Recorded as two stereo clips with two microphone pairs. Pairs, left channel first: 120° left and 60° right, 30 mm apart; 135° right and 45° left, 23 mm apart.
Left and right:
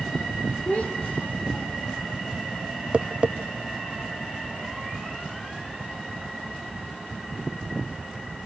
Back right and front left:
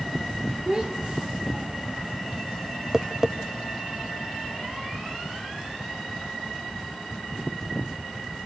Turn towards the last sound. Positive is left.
turn(degrees=-25)